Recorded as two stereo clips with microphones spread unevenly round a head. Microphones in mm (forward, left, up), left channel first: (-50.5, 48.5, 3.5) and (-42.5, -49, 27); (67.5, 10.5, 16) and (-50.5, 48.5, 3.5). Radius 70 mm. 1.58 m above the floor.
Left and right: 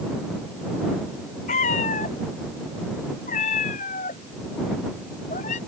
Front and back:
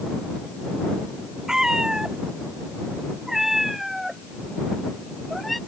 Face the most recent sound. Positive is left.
turn(degrees=70)